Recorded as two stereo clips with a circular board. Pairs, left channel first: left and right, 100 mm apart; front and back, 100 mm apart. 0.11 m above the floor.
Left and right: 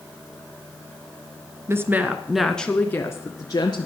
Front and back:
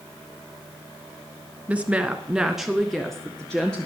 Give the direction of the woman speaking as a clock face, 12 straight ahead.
4 o'clock.